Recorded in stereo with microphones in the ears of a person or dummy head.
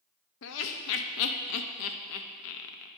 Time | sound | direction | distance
0.4 | laughter | 80° left | 0.6 m